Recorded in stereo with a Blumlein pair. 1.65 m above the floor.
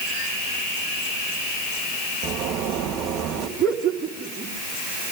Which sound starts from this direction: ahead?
Laughter, at 3.6 s.